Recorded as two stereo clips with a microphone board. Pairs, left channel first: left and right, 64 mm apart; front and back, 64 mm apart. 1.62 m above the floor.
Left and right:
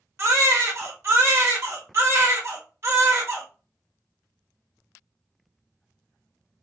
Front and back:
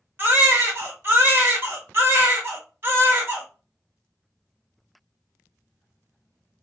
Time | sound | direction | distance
0.2 | a baby crying | 130° right | 1.0 m